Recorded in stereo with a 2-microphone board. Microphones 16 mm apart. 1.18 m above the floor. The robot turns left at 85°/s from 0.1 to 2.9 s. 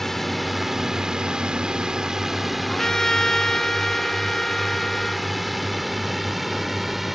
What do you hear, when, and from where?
0.0 s a drone: 25° left (ahead or behind); by 7.2 s 15° right (ahead or behind)
2.7 s a trumpet: 40° left (ahead or behind); by 5.3 s 55° left (ahead or behind)